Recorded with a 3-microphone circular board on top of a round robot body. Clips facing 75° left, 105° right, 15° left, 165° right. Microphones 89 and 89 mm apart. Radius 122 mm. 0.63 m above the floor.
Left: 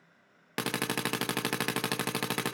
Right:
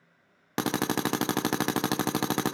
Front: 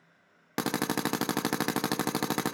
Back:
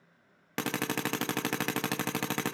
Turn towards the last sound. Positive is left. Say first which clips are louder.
# right 5 dB, front 3 dB
turn(degrees=-50)